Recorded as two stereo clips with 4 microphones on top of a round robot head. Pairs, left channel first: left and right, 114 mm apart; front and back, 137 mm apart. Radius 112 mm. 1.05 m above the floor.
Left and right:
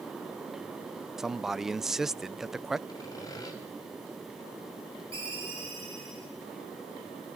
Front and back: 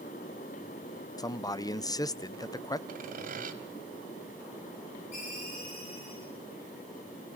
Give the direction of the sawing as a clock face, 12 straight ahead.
7 o'clock.